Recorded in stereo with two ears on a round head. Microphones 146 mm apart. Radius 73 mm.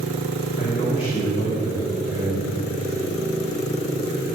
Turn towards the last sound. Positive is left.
turn(degrees=45)  # may be behind; listen again after turning